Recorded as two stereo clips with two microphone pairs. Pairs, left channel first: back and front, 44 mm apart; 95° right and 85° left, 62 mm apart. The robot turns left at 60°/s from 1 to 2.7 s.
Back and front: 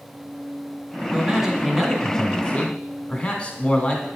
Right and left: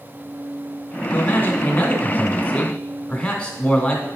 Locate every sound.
1.1 s a man speaking: 60° right, 1.2 m; by 4.1 s 155° right, 1.2 m